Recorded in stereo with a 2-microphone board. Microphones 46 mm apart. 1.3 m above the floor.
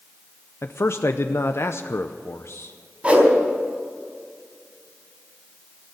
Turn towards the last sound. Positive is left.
turn(degrees=-30)  # may be behind; listen again after turning